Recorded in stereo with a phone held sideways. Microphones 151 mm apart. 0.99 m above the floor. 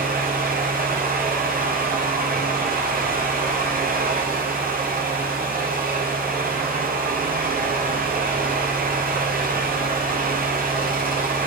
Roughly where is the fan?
Right.